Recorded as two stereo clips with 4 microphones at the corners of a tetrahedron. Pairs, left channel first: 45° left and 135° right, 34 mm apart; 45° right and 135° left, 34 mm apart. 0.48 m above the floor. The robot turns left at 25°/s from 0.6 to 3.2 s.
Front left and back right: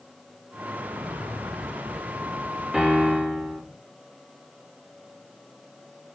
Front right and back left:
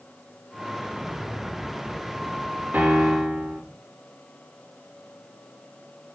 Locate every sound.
0.8 s an explosion: 145° right, 4 m; by 3.7 s 155° left, 4 m
2.7 s a piano: 145° left, 7 m; by 3.6 s 135° left, 7 m